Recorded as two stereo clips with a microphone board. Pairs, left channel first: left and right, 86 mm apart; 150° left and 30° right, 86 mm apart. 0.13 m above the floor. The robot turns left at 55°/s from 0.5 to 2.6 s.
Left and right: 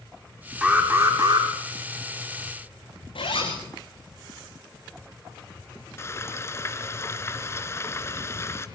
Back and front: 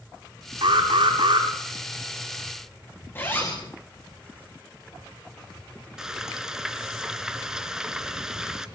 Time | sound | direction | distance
0.6 | an alarm | 15° right | 8 m
3.1 | a zipper | 85° left | 8.5 m
6.0 | frying | 50° left | 1.9 m